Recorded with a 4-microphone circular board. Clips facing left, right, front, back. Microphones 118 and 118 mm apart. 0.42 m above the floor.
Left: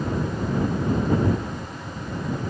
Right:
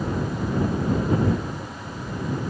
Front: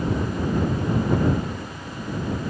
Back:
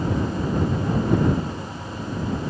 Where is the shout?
I don't hear a shout.